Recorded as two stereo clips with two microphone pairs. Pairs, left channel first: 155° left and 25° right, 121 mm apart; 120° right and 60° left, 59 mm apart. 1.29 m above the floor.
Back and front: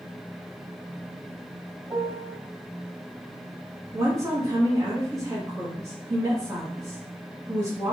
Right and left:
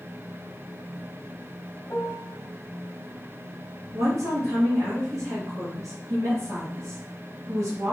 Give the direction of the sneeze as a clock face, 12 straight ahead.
No sneeze in this recording.